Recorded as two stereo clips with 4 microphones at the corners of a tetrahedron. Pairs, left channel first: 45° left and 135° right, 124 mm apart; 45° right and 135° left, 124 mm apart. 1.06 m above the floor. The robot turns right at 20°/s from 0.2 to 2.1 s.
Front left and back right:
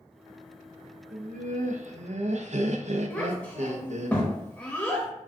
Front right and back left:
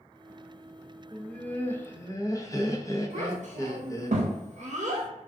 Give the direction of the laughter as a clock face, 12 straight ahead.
4 o'clock.